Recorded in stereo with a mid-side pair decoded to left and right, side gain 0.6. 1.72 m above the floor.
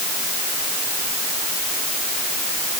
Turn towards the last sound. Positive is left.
No sound to turn to.